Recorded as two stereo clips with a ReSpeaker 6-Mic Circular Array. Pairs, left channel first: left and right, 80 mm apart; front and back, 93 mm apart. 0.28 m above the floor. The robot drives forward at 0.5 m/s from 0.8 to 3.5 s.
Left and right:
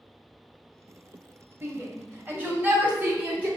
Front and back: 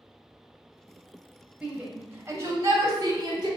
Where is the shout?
110° right, 1.0 m; by 3.5 s 155° right, 1.5 m.